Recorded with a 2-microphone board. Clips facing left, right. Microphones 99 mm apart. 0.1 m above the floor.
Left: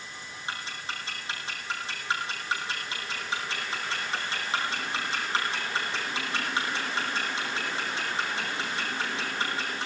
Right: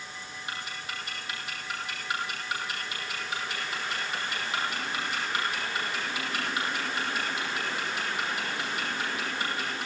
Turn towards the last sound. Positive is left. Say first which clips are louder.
# left 2 dB
turn(degrees=30)  # may be behind; listen again after turning